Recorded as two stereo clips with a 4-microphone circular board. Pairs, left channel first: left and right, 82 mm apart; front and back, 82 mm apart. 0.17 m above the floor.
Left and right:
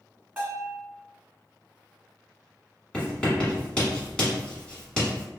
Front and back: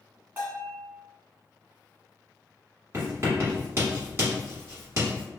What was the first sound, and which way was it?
A bell, 150° right.